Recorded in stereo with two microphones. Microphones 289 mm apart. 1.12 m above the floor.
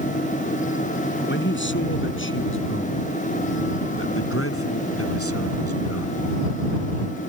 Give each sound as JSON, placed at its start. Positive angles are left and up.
{"t": 1.3, "sound": "a man speaking", "side_deg": 40}